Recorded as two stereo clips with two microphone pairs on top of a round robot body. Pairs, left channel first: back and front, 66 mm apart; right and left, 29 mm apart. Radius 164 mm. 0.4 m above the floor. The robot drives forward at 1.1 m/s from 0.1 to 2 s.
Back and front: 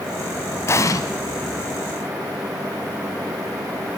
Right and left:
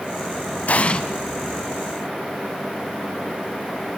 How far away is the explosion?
About 0.8 m.